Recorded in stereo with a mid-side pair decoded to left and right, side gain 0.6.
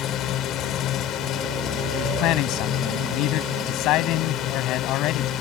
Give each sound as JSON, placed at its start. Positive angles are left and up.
{"t": 0.0, "sound": "a drone", "azimuth_deg": 60}
{"t": 1.9, "sound": "a man speaking", "azimuth_deg": 65}